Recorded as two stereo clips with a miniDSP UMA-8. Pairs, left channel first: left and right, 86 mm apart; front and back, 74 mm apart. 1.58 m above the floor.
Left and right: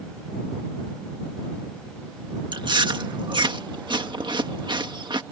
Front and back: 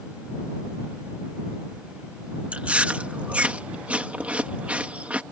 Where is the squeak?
I don't hear a squeak.